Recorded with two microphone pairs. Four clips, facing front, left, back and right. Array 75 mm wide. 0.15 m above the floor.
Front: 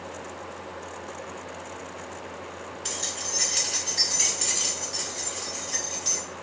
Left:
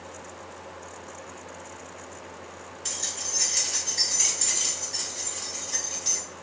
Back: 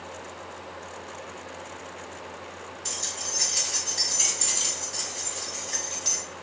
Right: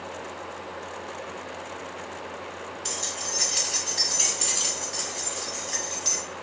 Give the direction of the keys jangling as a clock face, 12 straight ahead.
1 o'clock.